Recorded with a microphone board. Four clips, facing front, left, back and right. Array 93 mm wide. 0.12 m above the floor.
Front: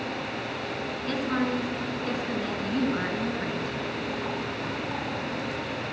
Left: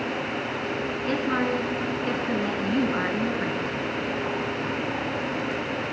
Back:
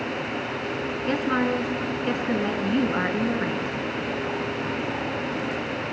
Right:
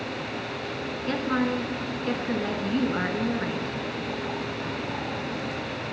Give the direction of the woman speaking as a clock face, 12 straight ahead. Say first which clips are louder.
Even, back 4 dB; 6 o'clock.